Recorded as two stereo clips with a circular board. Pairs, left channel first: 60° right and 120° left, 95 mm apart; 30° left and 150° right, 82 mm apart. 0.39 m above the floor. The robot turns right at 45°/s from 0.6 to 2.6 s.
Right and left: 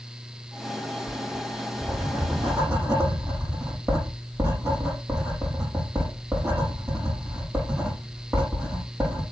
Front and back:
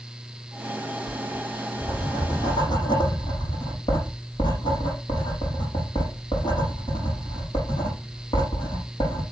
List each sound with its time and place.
1.1 s writing: 10° right, 7.5 m; by 9.2 s 55° left, 7.5 m